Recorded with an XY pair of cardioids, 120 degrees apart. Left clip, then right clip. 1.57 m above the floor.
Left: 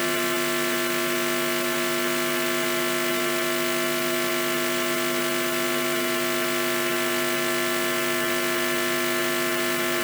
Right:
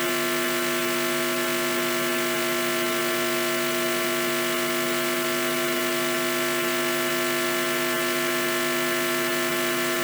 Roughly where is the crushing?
I don't hear crushing.